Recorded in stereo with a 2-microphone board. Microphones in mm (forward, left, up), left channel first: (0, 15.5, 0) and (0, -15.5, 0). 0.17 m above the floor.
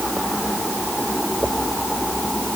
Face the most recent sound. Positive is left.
No sound to turn to.